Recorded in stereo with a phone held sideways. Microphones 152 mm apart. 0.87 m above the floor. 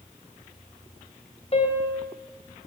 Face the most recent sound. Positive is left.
turn(degrees=40)  # may be behind; listen again after turning